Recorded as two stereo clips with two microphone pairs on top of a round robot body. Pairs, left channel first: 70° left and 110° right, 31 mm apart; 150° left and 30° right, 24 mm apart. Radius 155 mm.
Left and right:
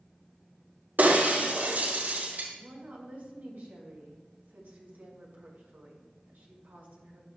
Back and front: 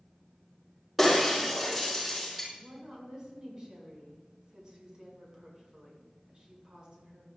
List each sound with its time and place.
1.0 s breaking glass: 120° right, 5.5 m
2.5 s a woman speaking: 85° right, 5.5 m